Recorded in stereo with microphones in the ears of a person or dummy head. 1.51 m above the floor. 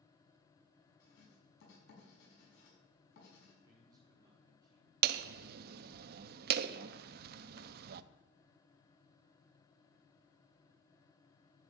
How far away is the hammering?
About 0.5 m.